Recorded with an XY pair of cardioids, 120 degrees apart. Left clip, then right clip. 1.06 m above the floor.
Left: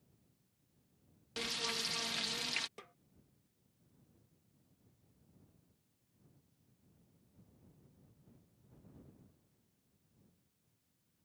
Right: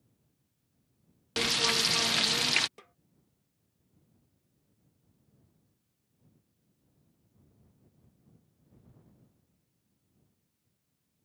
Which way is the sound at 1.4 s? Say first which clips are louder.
Right 11 dB; 60° right.